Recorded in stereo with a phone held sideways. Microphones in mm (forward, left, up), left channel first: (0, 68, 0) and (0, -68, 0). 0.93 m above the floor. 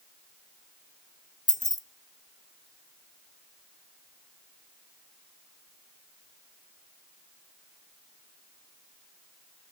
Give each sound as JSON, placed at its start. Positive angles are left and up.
{"t": 1.5, "sound": "keys jangling", "side_deg": 65, "distance_m": 0.6}